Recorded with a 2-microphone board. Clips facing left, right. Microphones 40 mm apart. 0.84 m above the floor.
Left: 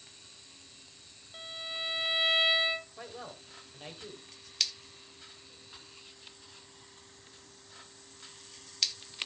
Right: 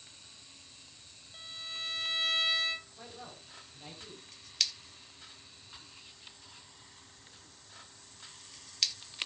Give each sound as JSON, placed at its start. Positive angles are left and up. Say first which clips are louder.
{"t": 1.3, "sound": "a violin", "louder": "left 3 dB", "side_deg": 25, "distance_m": 1.1}
{"t": 3.0, "sound": "a man speaking", "louder": "left 4 dB", "side_deg": 50, "distance_m": 4.5}